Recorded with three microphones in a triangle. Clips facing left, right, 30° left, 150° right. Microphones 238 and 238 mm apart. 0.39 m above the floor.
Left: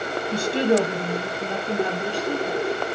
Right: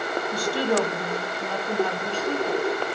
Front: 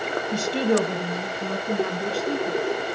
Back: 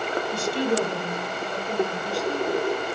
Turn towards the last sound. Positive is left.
turn(degrees=10)